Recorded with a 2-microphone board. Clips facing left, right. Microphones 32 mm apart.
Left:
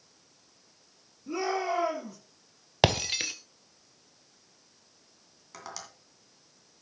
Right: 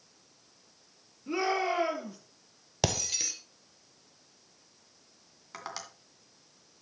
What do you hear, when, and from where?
1.3 s a shout: 30° right (ahead or behind), 5 m
2.8 s breaking glass: 40° left (ahead or behind), 0.8 m
5.5 s tapping: 20° right (ahead or behind), 2.5 m